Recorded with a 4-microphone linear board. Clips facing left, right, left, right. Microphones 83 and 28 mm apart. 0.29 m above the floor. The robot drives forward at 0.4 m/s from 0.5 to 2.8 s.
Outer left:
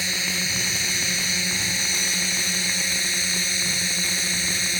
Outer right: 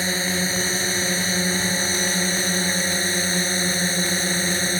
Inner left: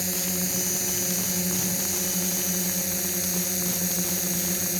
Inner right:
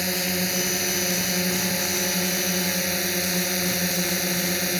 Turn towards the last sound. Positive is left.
turn(degrees=-40)  # may be behind; listen again after turning